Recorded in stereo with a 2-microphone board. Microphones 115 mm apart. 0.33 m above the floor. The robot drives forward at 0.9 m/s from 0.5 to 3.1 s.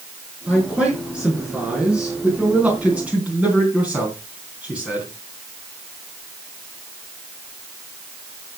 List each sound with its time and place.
0.5 s a man speaking: 5° right (ahead or behind), 6 m; by 5.1 s 10° right (ahead or behind), 3.5 m